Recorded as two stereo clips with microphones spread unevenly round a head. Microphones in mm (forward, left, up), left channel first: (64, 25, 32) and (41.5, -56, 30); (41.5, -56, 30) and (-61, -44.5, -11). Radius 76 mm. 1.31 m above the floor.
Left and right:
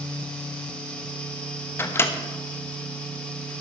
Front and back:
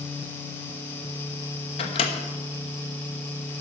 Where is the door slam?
No door slam in this recording.